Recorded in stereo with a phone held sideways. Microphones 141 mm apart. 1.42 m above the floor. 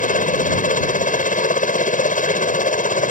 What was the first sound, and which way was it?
A helicopter, 70° left (ahead or behind).